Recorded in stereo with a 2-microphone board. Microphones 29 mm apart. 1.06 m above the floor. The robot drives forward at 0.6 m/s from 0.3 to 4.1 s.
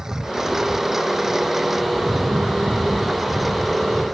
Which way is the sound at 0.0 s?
15° right (ahead or behind).